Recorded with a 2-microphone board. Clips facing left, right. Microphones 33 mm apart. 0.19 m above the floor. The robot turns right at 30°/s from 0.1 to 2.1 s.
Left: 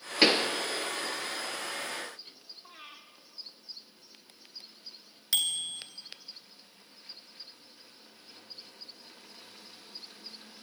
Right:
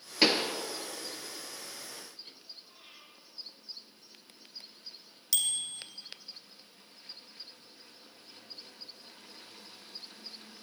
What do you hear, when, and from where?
0.2 s a pop: 10° left (ahead or behind), 1.4 m; by 0.5 s 20° left (ahead or behind), 1.4 m
2.6 s breathing: 55° left (ahead or behind), 3 m
5.3 s a bicycle bell: 30° left (ahead or behind), 2 m